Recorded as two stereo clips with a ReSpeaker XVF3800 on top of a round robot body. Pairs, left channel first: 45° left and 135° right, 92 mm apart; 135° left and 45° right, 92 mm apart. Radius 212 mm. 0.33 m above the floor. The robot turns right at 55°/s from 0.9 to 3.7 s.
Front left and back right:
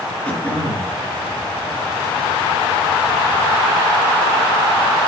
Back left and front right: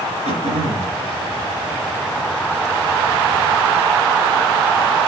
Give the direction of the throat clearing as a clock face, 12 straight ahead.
1 o'clock.